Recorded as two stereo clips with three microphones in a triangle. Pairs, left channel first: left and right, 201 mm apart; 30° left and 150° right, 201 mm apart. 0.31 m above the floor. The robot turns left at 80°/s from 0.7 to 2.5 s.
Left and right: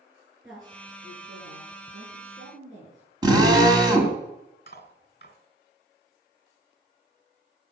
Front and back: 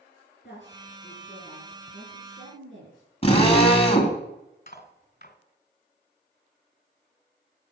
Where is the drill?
25° right, 2 m.